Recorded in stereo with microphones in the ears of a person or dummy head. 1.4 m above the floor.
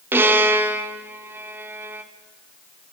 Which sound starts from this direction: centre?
A violin, at 0.1 s.